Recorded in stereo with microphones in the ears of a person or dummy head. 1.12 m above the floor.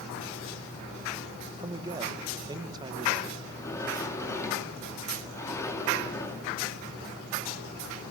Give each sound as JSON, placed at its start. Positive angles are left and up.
{"t": 1.6, "sound": "a man speaking", "side_deg": -20, "distance_m": 1.1}
{"t": 3.4, "sound": "a sliding door", "side_deg": 15, "distance_m": 2.5}